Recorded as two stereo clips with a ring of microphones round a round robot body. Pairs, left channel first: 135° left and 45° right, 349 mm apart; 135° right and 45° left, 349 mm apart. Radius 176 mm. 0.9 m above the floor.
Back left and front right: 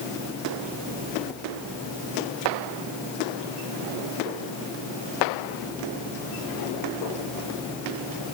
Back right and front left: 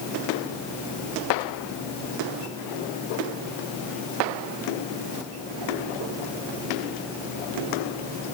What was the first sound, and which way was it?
Only background noise.